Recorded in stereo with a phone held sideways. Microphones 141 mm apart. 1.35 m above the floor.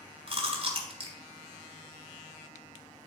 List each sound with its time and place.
0.3 s chewing: 40° right (ahead or behind), 1.8 m